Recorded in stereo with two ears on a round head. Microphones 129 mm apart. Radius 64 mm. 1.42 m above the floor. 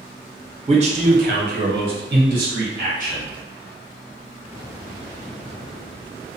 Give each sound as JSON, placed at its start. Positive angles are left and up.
{"t": 0.7, "sound": "a man speaking", "side_deg": -40, "distance_m": 0.7}